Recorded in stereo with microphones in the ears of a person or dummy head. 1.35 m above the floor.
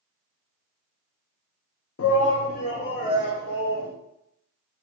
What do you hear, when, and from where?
2.0 s a shout: 70° left (ahead or behind), 0.5 m; by 3.9 s 25° left (ahead or behind), 1.8 m